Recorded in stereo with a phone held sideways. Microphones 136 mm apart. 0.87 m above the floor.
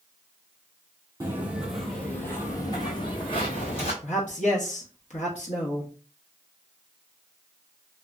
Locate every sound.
1.2 s footsteps: 20° right (ahead or behind), 1.0 m; by 3.9 s 50° left (ahead or behind), 1.8 m
4.0 s a man speaking: 60° left (ahead or behind), 0.8 m